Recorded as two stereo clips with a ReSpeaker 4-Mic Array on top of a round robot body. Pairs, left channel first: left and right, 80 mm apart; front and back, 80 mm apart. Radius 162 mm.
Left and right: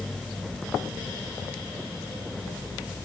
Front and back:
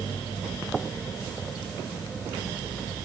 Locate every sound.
Only background noise.